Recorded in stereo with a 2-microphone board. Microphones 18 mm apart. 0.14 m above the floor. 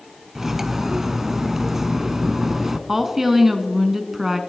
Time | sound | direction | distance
0.3 | cutlery clinking | 25° right (ahead or behind) | 0.7 m
2.9 | a woman speaking | 20° right (ahead or behind) | 1.1 m